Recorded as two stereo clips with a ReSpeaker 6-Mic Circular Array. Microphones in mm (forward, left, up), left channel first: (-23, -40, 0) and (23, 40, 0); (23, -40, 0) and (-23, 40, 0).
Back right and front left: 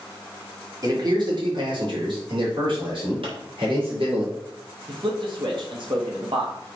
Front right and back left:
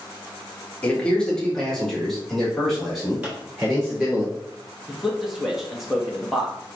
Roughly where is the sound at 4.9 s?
Ahead left.